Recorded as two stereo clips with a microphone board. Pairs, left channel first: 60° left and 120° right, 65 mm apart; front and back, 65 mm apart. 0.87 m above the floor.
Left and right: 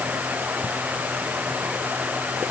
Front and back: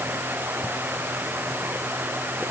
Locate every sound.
Only background noise.